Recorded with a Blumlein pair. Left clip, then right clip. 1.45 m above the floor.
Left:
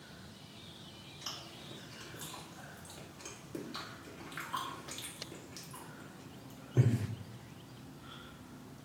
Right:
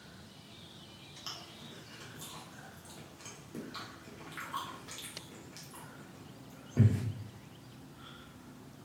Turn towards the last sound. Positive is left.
turn(degrees=5)